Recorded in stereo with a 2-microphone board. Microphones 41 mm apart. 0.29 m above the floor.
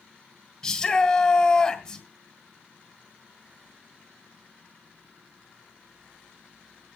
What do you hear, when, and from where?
0.6 s a shout: 15° left (ahead or behind), 1.5 m